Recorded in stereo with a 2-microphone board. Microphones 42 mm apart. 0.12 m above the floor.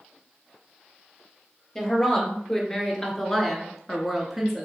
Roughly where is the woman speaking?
Centre.